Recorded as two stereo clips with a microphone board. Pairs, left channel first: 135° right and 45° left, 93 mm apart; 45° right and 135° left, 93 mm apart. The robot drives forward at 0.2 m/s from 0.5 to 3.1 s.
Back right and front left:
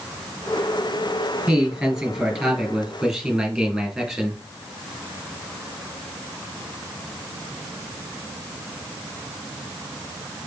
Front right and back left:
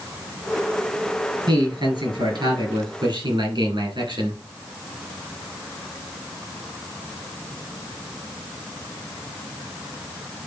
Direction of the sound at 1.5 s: 125° left.